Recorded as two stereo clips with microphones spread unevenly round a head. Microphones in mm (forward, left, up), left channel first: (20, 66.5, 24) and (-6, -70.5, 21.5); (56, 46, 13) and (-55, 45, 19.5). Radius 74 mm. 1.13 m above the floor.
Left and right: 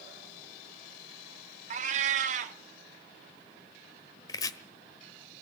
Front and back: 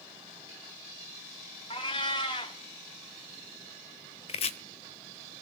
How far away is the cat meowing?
About 1.3 m.